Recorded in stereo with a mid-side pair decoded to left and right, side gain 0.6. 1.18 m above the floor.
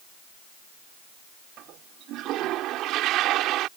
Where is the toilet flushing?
65° right.